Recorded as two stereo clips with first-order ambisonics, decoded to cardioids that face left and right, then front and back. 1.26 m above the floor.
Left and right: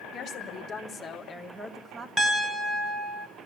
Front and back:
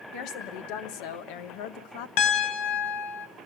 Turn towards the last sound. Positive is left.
turn(degrees=-5)